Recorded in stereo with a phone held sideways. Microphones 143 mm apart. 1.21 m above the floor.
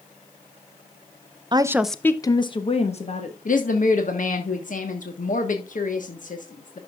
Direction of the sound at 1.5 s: 35° right (ahead or behind).